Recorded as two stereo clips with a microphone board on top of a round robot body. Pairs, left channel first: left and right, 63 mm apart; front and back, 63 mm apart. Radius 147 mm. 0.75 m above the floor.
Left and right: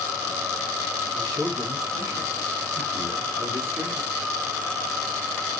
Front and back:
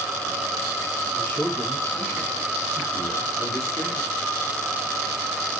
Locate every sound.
1.1 s a man speaking: 60° right, 7 m; by 4.0 s 35° right, 7.5 m